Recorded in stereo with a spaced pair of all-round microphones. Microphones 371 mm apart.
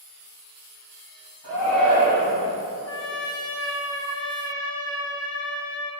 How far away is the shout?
About 2.5 m.